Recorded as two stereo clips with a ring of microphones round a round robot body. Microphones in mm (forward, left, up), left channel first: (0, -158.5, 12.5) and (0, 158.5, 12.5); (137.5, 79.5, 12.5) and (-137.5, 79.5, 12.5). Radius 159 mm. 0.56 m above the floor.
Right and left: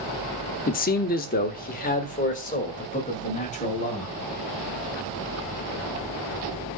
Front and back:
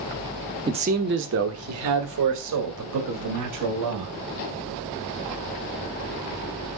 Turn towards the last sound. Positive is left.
turn(degrees=-160)